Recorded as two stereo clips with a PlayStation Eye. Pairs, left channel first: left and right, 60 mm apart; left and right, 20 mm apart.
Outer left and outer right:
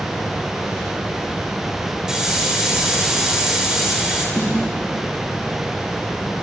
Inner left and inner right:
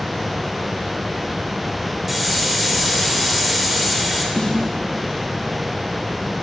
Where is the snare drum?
45° left (ahead or behind), 1.4 m.